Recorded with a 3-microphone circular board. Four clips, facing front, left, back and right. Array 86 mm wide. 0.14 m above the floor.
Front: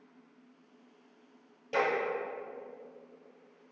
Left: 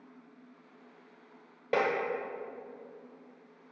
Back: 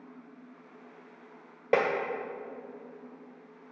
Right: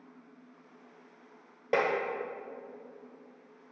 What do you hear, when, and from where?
1.7 s tapping: 165° right, 1.4 m